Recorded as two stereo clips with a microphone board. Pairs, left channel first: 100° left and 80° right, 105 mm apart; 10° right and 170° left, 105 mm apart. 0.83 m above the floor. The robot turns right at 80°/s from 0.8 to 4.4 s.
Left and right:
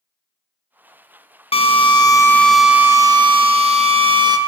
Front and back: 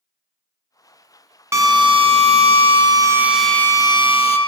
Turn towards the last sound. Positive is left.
turn(degrees=-25)